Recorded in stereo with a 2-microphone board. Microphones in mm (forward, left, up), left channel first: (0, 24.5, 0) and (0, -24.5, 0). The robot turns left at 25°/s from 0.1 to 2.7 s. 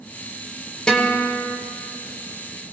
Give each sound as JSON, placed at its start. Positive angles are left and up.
{"t": 0.9, "sound": "a guitar", "side_deg": 20, "distance_m": 1.7}